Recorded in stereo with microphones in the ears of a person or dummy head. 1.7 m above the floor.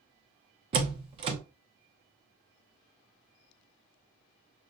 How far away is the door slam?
About 0.6 m.